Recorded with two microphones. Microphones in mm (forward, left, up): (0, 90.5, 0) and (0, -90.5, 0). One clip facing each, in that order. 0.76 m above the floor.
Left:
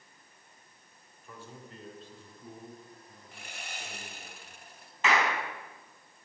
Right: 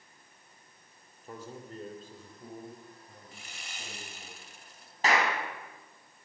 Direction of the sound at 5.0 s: 35° right (ahead or behind).